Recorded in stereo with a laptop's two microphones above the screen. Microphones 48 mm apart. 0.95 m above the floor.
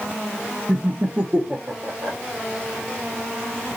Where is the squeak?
No squeak in this recording.